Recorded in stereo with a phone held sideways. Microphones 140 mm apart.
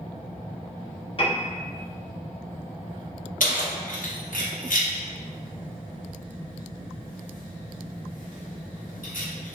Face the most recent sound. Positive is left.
turn(degrees=75)  # may be behind; listen again after turning